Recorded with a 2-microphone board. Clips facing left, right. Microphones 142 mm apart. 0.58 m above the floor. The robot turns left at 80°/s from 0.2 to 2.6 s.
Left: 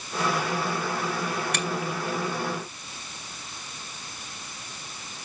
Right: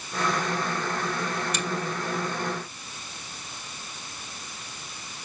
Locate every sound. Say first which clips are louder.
1.5 s a finger snap: left 1 dB; 65° left (ahead or behind), 4.5 m; by 1.6 s 75° left (ahead or behind), 4.5 m